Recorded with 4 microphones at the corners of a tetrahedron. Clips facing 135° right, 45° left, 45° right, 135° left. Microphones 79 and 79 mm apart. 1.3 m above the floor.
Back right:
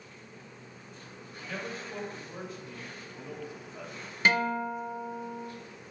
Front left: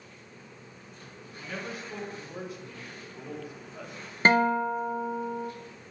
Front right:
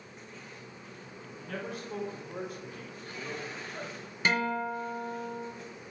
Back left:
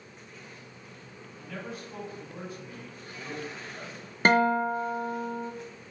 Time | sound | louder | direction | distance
1.4 | a man speaking | front left 1 dB, front right 1 dB | 35° right | 3 m
4.2 | a guitar | front left 5 dB, back left 7 dB | 95° left | 0.7 m